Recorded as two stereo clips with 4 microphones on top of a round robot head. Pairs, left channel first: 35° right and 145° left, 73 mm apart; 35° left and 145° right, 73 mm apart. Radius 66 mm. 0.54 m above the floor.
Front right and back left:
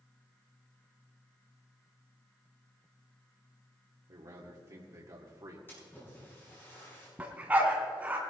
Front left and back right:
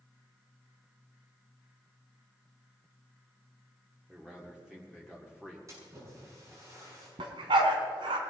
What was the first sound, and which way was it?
A man speaking, 140° left.